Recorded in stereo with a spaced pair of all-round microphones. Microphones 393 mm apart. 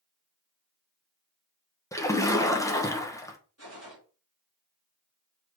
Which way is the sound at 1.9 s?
10° left (ahead or behind).